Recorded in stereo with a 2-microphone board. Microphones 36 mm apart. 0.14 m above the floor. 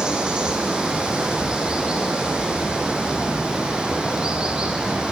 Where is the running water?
25° right (ahead or behind), 0.7 m.